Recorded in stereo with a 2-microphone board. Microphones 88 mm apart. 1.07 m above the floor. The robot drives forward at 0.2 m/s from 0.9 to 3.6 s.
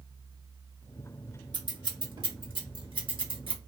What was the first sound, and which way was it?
Scissors, 50° right (ahead or behind).